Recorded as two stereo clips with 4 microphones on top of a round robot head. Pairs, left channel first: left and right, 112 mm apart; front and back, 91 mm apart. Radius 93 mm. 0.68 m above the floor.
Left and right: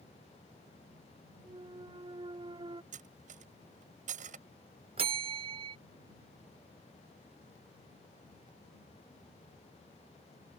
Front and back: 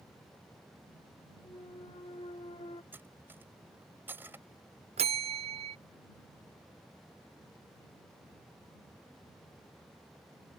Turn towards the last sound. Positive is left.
turn(degrees=-145)